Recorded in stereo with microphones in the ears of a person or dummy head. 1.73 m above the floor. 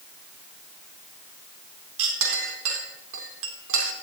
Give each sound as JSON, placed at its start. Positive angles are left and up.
{"t": 2.0, "sound": "a clink", "side_deg": -80, "distance_m": 3.5}